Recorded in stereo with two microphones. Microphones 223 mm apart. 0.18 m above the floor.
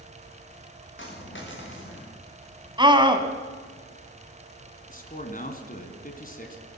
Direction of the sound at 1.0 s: 60° left (ahead or behind).